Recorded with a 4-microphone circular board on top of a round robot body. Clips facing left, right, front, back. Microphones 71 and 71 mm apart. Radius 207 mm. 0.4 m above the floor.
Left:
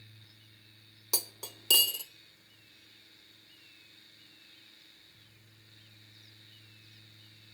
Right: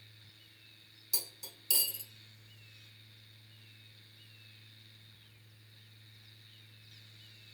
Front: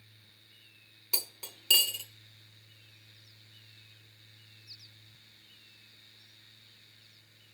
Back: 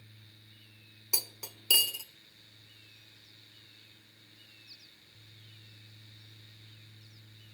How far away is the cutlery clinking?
About 0.6 m.